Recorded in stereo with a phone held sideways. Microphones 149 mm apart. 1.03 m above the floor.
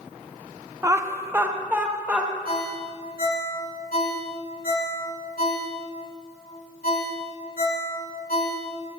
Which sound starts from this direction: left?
A ringtone, at 2.5 s.